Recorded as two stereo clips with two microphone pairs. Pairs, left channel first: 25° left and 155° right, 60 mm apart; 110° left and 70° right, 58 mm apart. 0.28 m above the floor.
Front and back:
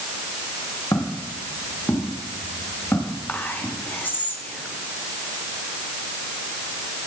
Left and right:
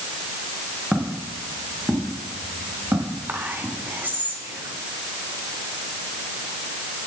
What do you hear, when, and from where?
0.9 s footsteps: 10° left, 4 m; by 3.7 s 30° right, 7 m
3.3 s whispering: 20° right, 3 m